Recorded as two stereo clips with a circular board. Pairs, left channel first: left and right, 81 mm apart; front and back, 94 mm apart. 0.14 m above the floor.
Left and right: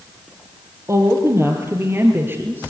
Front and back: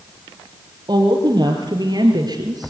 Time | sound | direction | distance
0.9 | a woman speaking | 140° right | 4.5 m